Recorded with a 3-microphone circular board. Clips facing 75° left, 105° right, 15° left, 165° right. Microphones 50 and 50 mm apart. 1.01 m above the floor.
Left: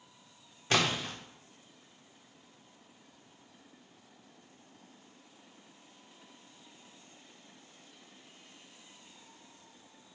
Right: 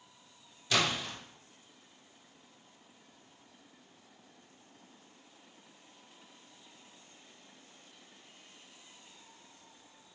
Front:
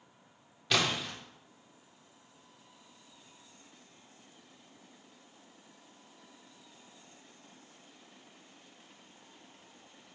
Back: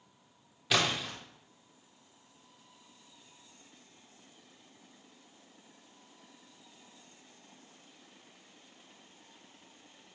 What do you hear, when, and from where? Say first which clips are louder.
0.7 s a splash: left 1 dB, even; 110° left, 0.8 m